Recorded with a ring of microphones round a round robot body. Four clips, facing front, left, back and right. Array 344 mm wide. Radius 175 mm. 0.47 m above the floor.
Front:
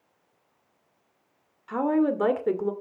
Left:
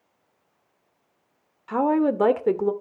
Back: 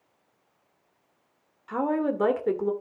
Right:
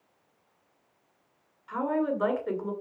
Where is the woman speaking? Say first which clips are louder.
Left 7 dB, front 3 dB; 85° left, 1.9 m.